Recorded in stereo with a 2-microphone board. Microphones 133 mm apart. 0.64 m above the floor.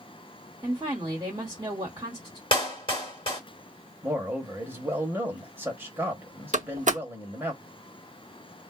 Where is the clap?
40° left (ahead or behind), 1.4 m.